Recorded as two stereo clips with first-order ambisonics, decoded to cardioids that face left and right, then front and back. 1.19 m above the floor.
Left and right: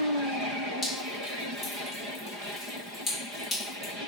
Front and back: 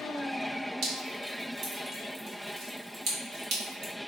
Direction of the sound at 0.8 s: 165° left.